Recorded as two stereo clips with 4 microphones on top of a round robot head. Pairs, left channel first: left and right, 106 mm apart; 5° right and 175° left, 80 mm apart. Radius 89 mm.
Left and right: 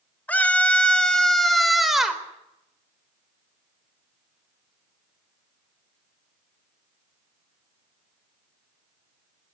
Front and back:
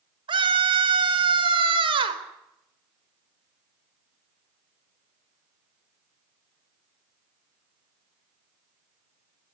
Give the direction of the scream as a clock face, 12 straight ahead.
6 o'clock.